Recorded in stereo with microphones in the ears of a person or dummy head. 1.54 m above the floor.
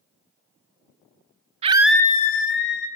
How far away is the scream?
About 0.7 m.